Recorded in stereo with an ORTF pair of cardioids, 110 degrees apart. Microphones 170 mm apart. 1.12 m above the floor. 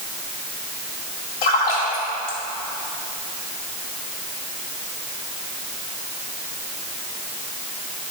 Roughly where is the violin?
No violin in this recording.